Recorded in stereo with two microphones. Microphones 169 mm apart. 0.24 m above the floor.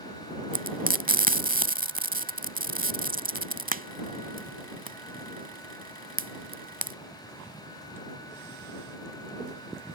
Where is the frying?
55° right (ahead or behind).